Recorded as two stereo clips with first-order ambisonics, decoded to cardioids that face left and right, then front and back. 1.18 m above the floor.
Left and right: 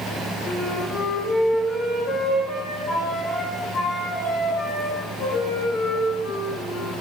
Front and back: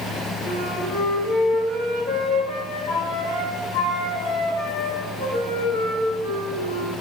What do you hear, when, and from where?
0.5 s a flute: 30° left, 5 m